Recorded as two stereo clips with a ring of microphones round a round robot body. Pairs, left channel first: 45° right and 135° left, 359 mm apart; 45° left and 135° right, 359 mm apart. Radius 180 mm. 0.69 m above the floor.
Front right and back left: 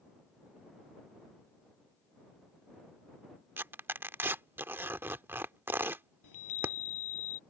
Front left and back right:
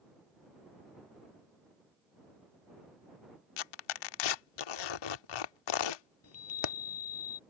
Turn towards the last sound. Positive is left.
turn(degrees=-5)